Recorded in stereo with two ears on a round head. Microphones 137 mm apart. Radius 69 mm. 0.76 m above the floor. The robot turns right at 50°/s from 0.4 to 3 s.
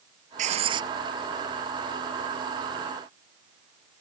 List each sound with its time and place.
0.4 s writing: 50° right (ahead or behind); by 0.9 s 25° right (ahead or behind)